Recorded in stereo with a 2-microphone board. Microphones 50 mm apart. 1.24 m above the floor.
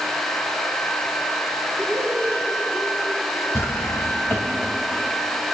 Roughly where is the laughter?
Left.